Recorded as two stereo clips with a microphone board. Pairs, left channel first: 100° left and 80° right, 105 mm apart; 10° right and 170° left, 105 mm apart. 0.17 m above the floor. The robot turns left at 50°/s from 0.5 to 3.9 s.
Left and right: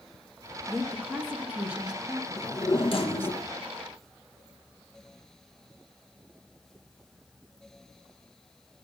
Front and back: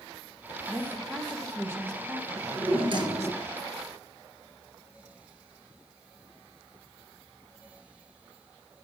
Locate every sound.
0.7 s a woman speaking: 95° right, 1.2 m; by 3.4 s 130° left, 1.2 m
2.4 s a drawer: 160° left, 1.2 m; by 3.5 s 100° left, 1.2 m